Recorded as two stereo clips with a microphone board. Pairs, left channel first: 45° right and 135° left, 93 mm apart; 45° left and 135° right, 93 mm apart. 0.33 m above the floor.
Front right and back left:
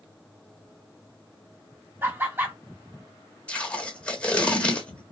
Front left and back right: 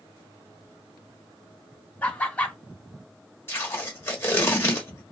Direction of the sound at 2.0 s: 100° left.